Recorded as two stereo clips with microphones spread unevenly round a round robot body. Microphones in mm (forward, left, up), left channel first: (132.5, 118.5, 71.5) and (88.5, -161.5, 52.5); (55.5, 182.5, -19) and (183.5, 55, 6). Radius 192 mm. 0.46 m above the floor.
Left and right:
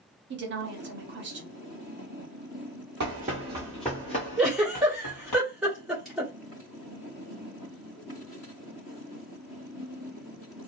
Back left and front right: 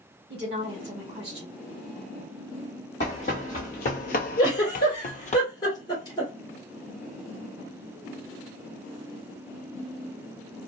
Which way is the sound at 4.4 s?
175° left.